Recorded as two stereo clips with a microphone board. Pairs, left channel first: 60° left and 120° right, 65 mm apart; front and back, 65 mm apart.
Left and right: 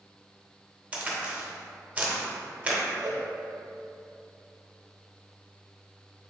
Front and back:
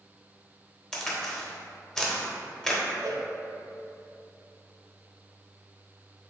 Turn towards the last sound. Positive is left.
turn(degrees=-165)